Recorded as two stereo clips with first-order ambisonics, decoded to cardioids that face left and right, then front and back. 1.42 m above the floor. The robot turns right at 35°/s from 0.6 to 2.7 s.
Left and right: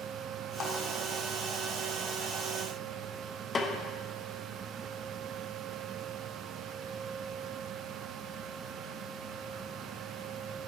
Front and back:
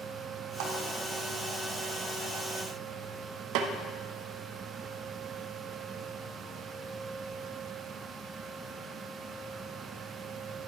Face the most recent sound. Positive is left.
turn(degrees=160)